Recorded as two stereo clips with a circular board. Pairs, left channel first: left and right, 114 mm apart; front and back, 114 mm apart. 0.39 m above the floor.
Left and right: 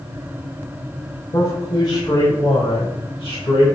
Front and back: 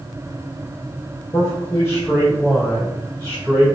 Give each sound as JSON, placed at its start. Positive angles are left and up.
{"t": 1.3, "sound": "a man speaking", "azimuth_deg": 50, "distance_m": 1.7}